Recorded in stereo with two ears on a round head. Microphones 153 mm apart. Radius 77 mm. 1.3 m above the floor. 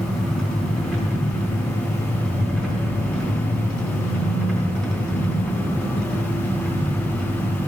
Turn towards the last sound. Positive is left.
turn(degrees=0)  # may be behind; listen again after turning